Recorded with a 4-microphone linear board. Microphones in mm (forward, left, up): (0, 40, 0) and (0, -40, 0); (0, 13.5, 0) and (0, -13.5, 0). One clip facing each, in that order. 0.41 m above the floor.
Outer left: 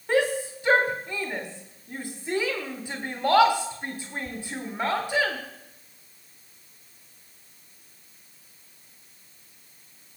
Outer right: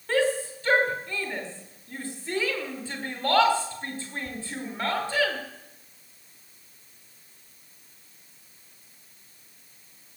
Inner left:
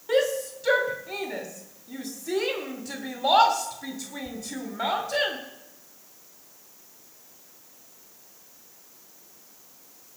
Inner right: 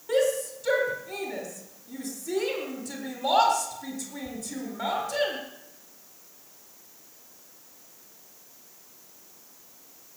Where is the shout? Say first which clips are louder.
Outer left 1 dB, inner left 1 dB; 15° left (ahead or behind), 1.5 m.